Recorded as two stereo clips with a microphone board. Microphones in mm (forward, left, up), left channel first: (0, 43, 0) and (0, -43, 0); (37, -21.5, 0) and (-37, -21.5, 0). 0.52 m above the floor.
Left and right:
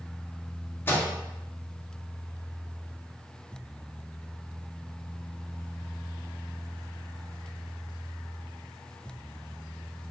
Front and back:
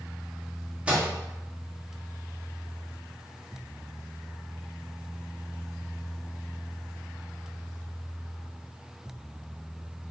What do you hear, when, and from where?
0.9 s a microwave: 125° left, 0.7 m